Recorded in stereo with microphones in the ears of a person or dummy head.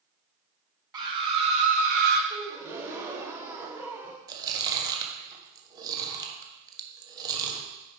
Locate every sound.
0.9 s a scream: 25° right (ahead or behind), 1.5 m; by 2.2 s 60° right (ahead or behind), 1.0 m
2.3 s a gasp: 15° right (ahead or behind), 0.7 m
4.3 s chewing: 15° right (ahead or behind), 1.1 m